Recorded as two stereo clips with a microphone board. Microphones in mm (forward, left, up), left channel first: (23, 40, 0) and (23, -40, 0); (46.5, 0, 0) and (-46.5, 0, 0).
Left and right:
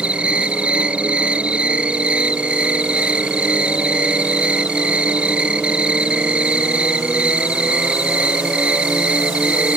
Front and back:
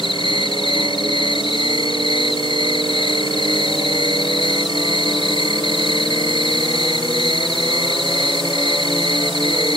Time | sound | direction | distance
0.0 | an insect | 15° right | ?